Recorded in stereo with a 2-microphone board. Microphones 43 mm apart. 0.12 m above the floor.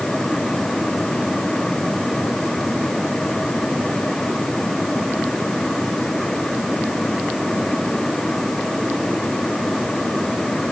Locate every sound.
Only background noise.